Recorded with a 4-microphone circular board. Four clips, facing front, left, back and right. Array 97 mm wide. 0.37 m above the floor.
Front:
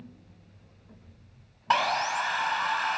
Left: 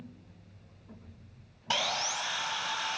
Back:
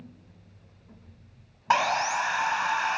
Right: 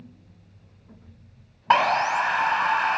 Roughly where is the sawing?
Right.